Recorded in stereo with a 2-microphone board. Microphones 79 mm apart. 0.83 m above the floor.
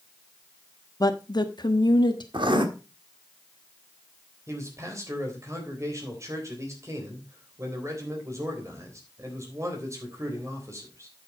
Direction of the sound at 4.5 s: 40° right (ahead or behind).